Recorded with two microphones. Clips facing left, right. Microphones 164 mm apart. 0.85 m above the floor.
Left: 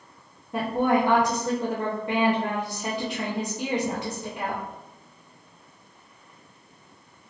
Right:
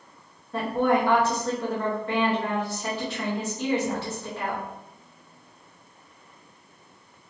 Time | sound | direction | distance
0.5 | a woman speaking | 15° left (ahead or behind) | 0.7 m